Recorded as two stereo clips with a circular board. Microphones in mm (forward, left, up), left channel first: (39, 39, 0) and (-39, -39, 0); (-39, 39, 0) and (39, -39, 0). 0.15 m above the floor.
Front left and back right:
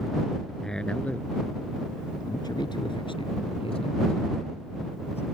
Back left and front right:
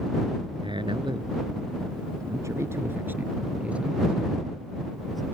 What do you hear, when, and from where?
0.6 s a man speaking: 40° right; by 5.2 s 45° left